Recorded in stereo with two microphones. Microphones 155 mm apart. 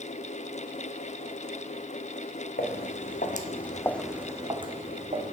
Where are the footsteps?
80° left, 1.2 m; by 5.3 s 50° right (ahead or behind), 1.4 m.